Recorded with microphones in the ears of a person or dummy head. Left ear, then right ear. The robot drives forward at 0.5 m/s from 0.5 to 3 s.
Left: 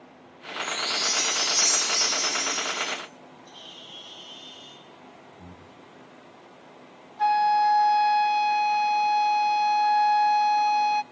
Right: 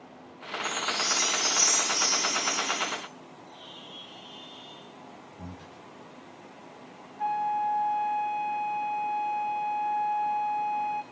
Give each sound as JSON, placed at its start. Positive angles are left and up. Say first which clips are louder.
{"t": 0.6, "sound": "a chime", "louder": "left 3 dB", "side_deg": 40, "distance_m": 9.5}
{"t": 3.5, "sound": "a bird", "louder": "left 3 dB", "side_deg": 90, "distance_m": 7.5}
{"t": 5.4, "sound": "breathing", "louder": "right 2 dB", "side_deg": -80, "distance_m": 3.5}
{"t": 7.2, "sound": "a flute", "louder": "left 7 dB", "side_deg": 70, "distance_m": 0.6}